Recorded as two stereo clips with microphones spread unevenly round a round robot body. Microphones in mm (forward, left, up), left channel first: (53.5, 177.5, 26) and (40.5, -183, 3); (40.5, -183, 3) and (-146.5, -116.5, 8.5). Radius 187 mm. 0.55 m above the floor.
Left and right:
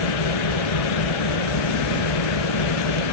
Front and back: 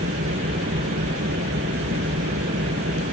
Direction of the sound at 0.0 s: 105° left.